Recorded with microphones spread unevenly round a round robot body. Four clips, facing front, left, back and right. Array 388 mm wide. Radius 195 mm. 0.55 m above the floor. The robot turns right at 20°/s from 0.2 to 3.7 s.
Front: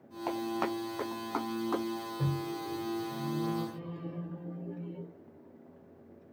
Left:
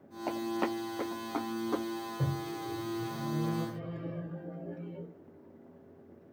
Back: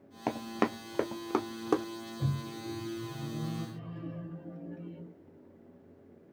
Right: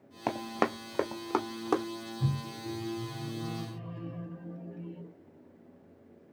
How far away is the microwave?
About 2.5 m.